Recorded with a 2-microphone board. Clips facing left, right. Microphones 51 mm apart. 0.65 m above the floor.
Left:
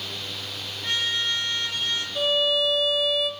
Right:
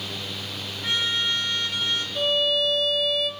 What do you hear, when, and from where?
0.8 s a trumpet: 15° right (ahead or behind), 6.5 m
2.1 s a violin: 5° left (ahead or behind), 1.4 m